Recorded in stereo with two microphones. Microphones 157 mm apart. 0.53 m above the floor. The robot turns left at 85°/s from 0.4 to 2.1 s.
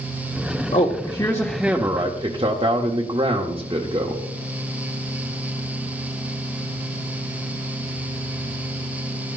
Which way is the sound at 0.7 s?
70° left.